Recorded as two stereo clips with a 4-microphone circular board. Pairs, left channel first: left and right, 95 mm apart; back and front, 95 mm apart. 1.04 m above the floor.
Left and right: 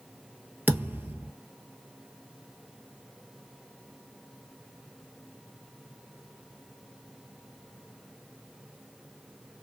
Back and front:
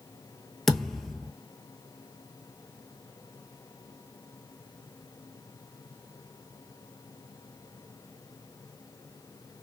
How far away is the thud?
About 1.0 m.